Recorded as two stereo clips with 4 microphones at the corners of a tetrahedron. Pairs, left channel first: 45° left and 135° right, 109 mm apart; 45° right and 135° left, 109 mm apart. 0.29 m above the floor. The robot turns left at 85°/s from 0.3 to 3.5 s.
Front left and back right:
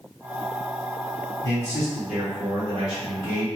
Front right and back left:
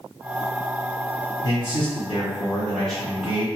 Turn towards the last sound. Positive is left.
turn(degrees=180)